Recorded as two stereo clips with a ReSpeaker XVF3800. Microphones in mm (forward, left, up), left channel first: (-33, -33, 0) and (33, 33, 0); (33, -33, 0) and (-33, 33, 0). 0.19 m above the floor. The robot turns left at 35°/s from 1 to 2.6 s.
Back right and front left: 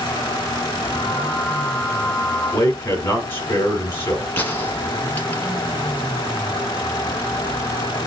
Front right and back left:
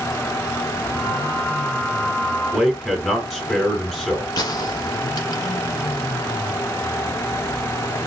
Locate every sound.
2.5 s a man speaking: 135° right, 1.1 m
4.4 s a gunshot: 70° right, 1.0 m